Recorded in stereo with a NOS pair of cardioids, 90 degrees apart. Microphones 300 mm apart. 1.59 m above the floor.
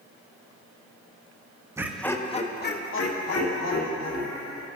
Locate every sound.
1.8 s laughter: 10° right, 0.9 m; by 4.7 s 70° left, 2 m